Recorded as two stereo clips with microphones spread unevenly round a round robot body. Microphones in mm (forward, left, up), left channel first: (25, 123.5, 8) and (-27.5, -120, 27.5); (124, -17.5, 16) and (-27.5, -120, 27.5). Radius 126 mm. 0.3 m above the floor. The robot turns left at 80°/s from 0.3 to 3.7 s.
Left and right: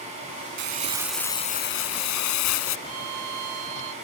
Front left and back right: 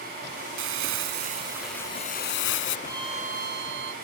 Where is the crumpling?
145° right; by 2.8 s 40° left.